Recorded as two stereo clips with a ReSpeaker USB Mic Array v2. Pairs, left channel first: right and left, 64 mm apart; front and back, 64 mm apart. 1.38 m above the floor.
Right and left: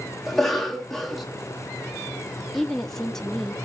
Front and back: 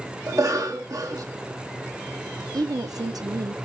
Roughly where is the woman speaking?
Behind.